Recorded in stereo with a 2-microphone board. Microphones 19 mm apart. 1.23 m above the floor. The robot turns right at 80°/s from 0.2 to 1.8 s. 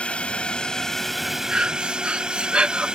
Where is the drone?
100° left; by 3.0 s 130° right.